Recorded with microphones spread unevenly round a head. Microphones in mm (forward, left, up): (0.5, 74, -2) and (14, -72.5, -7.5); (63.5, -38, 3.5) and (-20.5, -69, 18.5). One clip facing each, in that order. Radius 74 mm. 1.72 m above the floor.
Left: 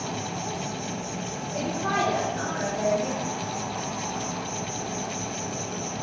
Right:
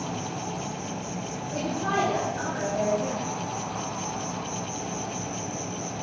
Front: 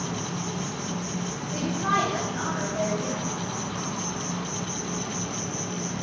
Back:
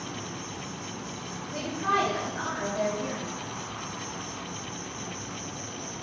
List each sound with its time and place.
0.0 s an insect: 5° left, 1.1 m
1.5 s a woman speaking: 50° right, 4.5 m